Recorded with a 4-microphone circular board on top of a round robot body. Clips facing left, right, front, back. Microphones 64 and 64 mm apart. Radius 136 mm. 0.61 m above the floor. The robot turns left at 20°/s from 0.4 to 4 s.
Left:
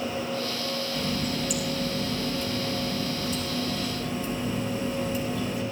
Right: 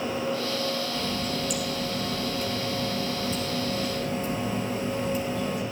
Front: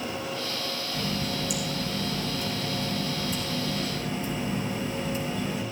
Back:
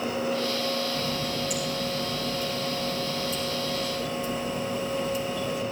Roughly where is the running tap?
Ahead.